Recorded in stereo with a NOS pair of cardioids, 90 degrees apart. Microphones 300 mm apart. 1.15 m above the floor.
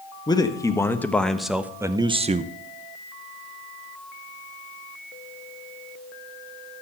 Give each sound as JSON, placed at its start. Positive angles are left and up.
{"t": 0.3, "sound": "a man speaking", "azimuth_deg": 15, "distance_m": 1.6}